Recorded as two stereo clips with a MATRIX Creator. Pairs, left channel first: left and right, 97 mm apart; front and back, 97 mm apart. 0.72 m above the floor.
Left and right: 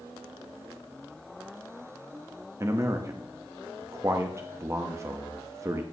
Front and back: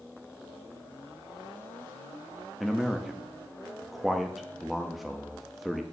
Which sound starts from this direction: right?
A man speaking, at 2.6 s.